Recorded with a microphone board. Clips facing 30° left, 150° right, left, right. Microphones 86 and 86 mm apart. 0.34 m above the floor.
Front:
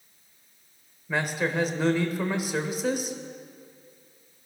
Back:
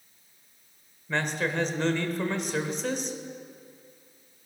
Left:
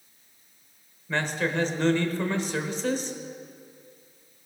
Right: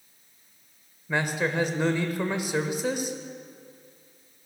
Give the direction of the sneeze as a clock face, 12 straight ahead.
No sneeze in this recording.